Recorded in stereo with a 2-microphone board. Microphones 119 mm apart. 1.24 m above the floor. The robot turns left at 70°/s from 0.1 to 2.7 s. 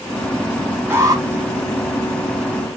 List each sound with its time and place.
0.9 s an alarm: 15° right (ahead or behind), 1.5 m; by 1.2 s 35° right (ahead or behind), 1.5 m